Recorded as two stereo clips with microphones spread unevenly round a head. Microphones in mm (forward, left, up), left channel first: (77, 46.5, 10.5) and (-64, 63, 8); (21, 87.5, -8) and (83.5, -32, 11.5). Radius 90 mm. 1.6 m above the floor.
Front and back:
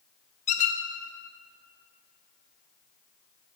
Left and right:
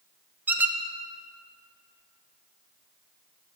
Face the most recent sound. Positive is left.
turn(degrees=5)